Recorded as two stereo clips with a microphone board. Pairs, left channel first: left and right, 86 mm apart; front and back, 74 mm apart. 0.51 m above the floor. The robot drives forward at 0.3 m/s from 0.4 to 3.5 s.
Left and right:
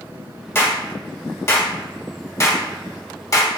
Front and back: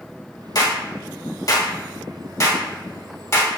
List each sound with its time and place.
0.6 s a clap: 30° left, 2 m; by 3.5 s 50° left, 1.6 m